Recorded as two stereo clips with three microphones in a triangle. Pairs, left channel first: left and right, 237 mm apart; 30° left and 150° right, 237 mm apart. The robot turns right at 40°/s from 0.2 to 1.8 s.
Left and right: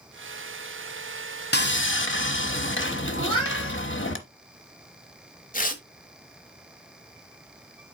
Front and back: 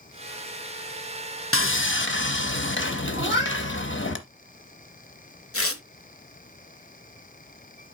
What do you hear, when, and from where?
1.5 s sawing: 50° left, 0.8 m; by 4.2 s 60° left, 0.8 m
3.2 s a cat meowing: 75° right, 5 m
5.5 s tearing paper: 40° left, 0.9 m